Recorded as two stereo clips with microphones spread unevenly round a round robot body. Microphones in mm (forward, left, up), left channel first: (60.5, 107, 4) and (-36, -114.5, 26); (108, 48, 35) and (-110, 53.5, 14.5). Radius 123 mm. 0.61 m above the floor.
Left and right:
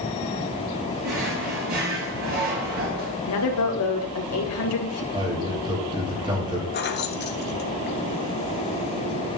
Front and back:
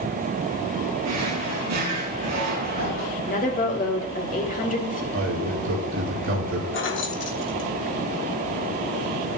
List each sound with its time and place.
1.0 s a drawer: 165° right, 5 m
3.2 s a woman speaking: 50° left, 2.5 m
5.1 s a man speaking: 175° left, 3 m
6.7 s keys jangling: 25° left, 1.3 m